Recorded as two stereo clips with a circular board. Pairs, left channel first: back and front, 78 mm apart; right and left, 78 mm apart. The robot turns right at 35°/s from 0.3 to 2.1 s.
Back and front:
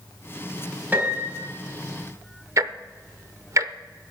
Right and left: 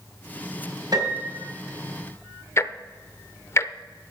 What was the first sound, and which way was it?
A piano, 65° left.